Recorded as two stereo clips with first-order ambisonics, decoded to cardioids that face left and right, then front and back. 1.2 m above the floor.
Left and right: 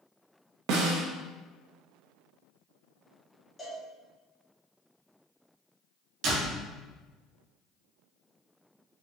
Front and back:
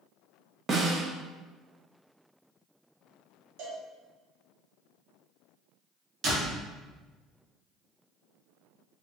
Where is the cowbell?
170° left, 1.2 m.